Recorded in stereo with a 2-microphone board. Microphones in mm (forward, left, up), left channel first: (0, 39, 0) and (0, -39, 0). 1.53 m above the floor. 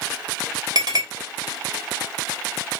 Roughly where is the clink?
Right.